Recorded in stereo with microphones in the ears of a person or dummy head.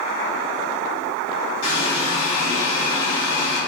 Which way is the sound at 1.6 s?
70° left (ahead or behind).